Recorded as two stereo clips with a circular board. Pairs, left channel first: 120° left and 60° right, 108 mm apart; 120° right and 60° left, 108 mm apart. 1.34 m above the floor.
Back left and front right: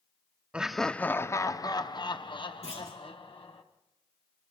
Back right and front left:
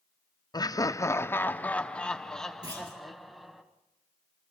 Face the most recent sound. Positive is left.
turn(degrees=110)